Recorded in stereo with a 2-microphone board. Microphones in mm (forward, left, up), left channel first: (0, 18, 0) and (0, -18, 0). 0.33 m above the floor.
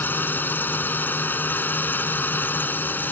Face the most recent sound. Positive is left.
turn(degrees=65)  # may be behind; listen again after turning